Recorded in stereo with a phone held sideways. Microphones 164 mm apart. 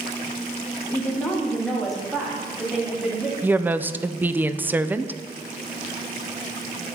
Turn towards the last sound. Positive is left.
turn(degrees=-10)  # may be behind; listen again after turning